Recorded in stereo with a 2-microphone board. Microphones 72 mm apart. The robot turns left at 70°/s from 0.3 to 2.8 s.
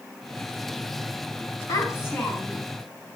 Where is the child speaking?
60° left, 5 m; by 2.7 s 15° right, 5 m.